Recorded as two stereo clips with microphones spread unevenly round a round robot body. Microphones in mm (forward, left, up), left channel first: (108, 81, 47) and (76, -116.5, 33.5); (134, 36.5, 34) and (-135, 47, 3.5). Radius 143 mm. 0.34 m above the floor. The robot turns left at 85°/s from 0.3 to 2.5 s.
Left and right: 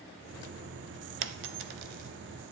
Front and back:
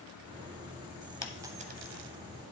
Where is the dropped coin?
85° right, 0.7 m; by 2.1 s 160° right, 0.7 m.